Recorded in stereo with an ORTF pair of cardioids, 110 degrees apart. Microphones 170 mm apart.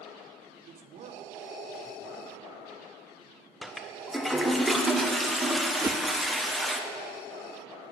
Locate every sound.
0.7 s a man speaking: 55° right, 1.5 m
3.6 s a toilet flushing: straight ahead, 1.2 m
5.8 s a whoosh: 20° right, 0.7 m